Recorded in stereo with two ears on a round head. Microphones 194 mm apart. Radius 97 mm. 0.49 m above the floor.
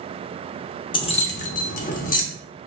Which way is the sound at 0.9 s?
20° left (ahead or behind).